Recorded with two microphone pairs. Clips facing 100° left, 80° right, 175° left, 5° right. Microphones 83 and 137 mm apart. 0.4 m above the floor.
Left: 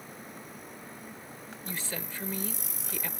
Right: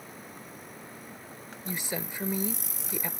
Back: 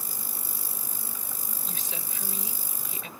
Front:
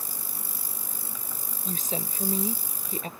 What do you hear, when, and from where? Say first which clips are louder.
1.6 s a woman speaking: right 4 dB, front 11 dB; 15° right